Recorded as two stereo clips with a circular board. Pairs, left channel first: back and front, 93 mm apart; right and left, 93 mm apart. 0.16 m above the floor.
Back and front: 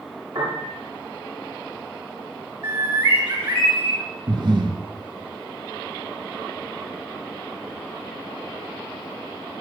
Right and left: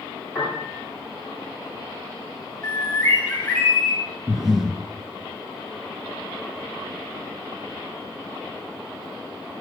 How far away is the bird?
About 5.5 m.